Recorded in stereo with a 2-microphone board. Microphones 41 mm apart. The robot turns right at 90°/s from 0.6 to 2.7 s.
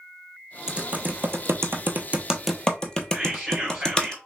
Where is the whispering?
15° right (ahead or behind), 2 m.